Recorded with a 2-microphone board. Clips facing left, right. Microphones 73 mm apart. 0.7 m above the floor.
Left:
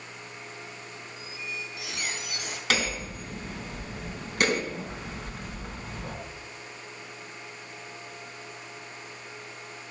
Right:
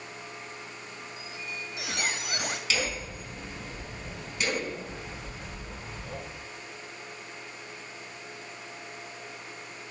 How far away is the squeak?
About 2 m.